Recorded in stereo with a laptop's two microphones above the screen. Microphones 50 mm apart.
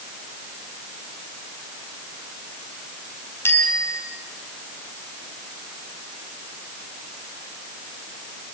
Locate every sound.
3.5 s a bicycle bell: 50° left (ahead or behind), 5 m